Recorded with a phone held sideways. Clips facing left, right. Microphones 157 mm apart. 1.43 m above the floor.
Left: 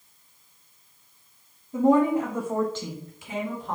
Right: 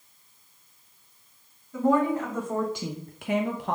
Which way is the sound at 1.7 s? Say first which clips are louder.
Left 3 dB; 35° left (ahead or behind).